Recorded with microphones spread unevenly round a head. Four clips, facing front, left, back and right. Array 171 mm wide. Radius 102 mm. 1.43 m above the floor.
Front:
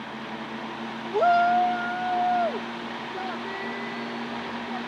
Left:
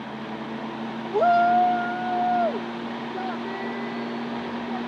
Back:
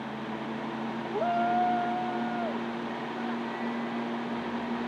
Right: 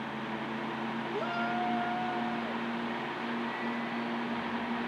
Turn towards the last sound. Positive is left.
turn(degrees=65)